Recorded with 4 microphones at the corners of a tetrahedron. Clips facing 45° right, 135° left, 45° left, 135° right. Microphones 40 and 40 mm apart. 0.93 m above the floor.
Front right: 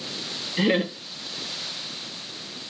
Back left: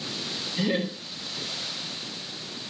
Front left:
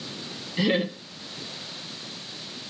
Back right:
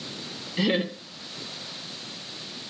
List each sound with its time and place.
0.6 s laughter: 55° right, 0.6 m